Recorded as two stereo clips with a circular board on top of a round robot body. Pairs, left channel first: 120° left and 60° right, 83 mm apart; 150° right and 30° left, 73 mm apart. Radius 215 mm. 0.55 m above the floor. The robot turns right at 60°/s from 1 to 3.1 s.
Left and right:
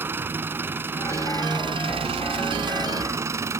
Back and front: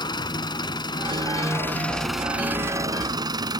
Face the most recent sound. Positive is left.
turn(degrees=0)